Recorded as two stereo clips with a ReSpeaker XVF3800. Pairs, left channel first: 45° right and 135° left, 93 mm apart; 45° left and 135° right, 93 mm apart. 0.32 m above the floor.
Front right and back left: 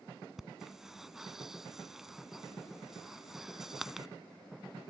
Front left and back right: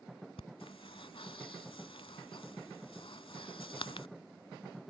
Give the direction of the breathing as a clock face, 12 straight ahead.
10 o'clock.